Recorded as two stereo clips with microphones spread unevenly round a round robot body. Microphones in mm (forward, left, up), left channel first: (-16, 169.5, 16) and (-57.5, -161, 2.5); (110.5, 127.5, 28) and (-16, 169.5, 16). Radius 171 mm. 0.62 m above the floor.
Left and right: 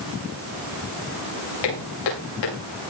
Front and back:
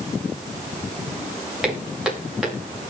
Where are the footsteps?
75° left, 9.5 m.